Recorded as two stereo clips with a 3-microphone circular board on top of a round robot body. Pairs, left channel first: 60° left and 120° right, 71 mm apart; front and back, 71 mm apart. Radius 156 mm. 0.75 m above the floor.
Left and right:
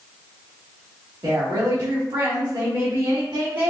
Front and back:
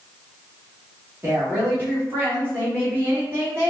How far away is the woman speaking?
About 1.8 m.